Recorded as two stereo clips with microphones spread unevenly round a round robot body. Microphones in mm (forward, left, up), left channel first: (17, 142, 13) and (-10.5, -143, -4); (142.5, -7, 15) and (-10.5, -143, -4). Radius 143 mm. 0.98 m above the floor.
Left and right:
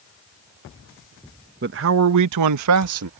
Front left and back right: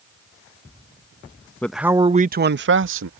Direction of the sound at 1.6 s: 45° right.